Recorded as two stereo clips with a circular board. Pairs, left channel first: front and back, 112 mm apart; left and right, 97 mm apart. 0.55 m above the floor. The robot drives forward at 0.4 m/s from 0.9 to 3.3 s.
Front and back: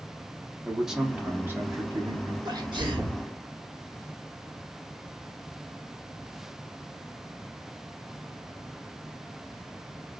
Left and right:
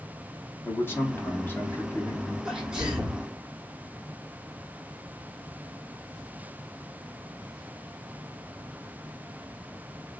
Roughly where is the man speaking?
Left.